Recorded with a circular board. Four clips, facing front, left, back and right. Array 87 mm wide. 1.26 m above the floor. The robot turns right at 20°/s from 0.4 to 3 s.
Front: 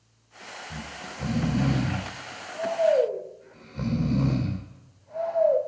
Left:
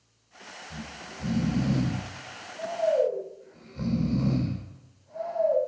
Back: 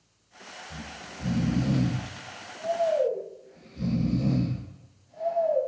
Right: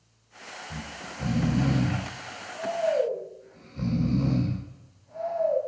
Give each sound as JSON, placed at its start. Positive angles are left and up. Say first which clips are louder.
{"t": 0.7, "sound": "snoring", "louder": "right 1 dB, front 3 dB", "azimuth_deg": -40, "distance_m": 2.5}